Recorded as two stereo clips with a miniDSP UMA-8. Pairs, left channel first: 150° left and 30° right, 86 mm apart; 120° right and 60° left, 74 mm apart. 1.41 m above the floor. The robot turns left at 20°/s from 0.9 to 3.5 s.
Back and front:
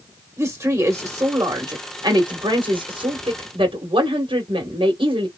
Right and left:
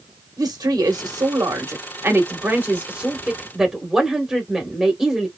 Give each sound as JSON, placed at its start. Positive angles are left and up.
{"t": 0.4, "sound": "a woman speaking", "azimuth_deg": 25, "distance_m": 1.3}